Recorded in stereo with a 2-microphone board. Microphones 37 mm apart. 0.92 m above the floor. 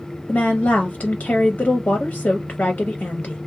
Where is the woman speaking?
40° left (ahead or behind), 0.6 m.